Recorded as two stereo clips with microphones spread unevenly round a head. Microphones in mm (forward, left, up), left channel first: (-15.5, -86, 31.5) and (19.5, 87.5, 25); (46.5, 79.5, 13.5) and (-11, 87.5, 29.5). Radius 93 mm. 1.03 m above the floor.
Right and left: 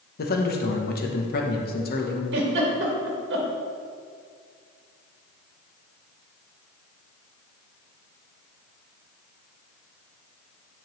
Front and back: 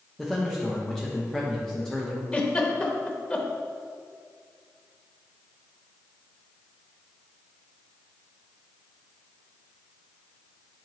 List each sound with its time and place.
0.2 s a man speaking: 80° right, 1.1 m
2.3 s a giggle: 55° left, 1.3 m